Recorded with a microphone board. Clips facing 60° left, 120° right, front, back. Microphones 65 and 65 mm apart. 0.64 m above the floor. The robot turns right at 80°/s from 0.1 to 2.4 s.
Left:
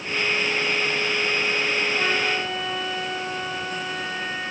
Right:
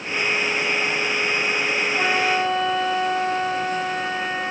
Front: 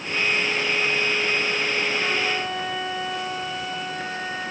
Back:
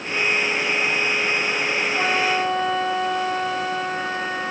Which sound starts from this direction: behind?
A flute, at 1.9 s.